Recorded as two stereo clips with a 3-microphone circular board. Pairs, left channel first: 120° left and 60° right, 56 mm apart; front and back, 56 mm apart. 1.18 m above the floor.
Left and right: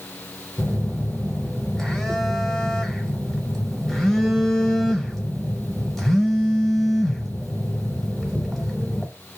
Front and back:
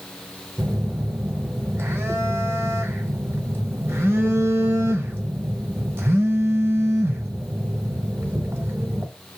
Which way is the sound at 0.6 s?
155° right.